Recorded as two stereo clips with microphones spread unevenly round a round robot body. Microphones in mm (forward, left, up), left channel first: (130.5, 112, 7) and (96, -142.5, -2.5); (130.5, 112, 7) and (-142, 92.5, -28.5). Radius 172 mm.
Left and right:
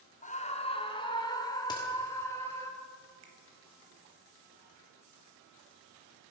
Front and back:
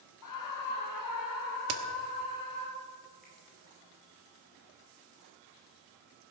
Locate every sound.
0.2 s a scream: 20° left, 1.8 m; by 2.7 s straight ahead, 4 m
1.7 s a crack: 160° left, 1.3 m
3.2 s a finger snap: 90° right, 3 m